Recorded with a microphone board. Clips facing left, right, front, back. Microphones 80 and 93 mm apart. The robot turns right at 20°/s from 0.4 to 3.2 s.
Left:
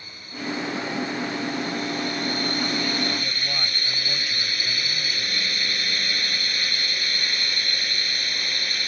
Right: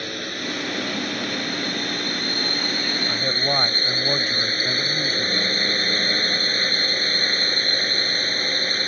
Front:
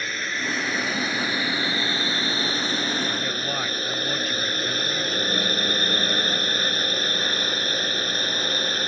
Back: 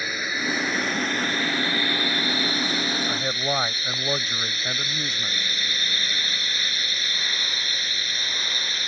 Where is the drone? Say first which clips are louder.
Right 5 dB, back 1 dB; 95° right; by 8.9 s 40° right.